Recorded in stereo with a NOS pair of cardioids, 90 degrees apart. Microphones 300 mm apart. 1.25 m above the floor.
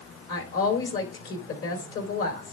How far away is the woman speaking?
About 4 m.